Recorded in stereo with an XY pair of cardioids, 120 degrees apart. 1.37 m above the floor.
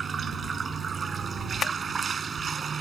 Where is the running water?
35° right.